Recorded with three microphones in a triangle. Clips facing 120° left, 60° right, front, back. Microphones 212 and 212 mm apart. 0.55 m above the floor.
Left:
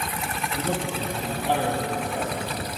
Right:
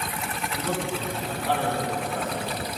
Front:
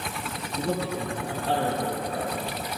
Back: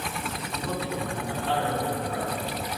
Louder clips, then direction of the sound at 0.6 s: Left 1 dB, front 3 dB; 50° left.